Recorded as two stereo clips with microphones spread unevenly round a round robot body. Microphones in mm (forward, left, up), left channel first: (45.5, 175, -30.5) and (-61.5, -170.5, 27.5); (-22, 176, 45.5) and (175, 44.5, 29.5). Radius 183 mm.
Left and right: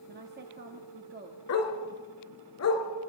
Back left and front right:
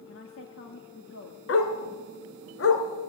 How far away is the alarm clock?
I don't hear an alarm clock.